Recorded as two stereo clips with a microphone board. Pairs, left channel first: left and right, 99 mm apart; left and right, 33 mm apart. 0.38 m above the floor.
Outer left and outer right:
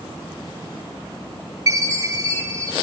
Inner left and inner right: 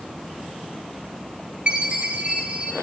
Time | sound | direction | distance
1.7 | a chime | 35° right (ahead or behind) | 1.3 m